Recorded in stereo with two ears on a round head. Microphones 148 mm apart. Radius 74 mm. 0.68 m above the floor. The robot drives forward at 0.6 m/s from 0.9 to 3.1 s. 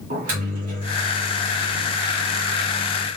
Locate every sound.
0.1 s a microwave: 50° right (ahead or behind), 2 m; by 3.1 s 30° right (ahead or behind), 3 m